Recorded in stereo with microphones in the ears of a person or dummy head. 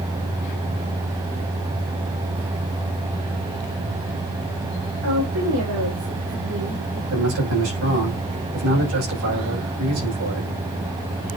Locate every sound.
5.0 s a woman speaking: 75° right (ahead or behind), 4 m; by 7.0 s 80° right, 5.5 m
7.1 s a man speaking: 75° right (ahead or behind), 6.5 m